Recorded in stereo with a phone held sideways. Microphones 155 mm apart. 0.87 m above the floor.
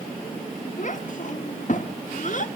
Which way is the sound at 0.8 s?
55° left (ahead or behind).